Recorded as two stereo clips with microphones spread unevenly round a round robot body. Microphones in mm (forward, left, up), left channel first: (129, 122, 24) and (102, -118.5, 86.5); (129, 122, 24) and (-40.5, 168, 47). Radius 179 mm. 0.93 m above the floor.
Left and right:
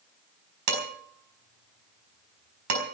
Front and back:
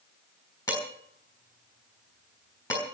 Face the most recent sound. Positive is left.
turn(degrees=-95)